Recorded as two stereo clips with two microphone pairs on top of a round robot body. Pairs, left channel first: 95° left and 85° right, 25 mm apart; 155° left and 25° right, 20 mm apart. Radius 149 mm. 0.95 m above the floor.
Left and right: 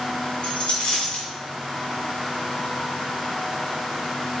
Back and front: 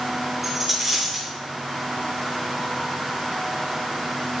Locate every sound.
0.4 s a dropped coin: 55° left, 3.5 m